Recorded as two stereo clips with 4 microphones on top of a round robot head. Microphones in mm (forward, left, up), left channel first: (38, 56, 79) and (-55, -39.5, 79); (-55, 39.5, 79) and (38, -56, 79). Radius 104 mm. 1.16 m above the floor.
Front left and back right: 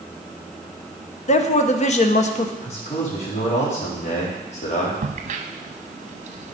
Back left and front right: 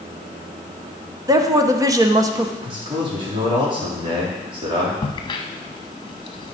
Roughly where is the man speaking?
Ahead.